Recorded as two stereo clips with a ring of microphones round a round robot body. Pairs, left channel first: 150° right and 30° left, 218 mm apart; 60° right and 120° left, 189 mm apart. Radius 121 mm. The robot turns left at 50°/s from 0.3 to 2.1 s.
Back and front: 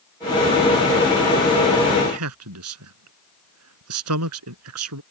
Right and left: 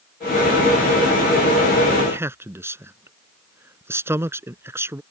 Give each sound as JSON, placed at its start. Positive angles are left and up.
{"t": 2.0, "sound": "a man speaking", "azimuth_deg": 45}